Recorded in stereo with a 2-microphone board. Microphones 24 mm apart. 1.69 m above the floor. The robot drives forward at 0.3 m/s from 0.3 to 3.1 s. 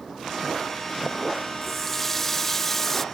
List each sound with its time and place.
1.6 s a running tap: 10° left (ahead or behind)